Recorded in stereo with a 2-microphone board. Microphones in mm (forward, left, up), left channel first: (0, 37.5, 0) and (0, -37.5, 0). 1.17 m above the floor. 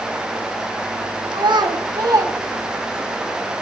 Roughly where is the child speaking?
Right.